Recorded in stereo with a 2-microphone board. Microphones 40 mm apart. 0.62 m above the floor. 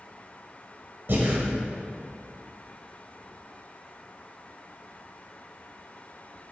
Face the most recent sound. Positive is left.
turn(degrees=-55)  # may be behind; listen again after turning